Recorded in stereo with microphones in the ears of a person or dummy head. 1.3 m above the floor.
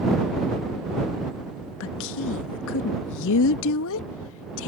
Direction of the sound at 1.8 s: 75° left (ahead or behind).